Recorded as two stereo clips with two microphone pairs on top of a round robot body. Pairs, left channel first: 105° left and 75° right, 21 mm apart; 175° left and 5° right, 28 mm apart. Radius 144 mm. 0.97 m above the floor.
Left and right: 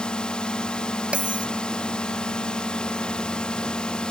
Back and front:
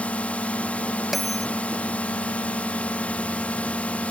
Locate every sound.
0.0 s a drone: 140° left
1.1 s a bell: 95° right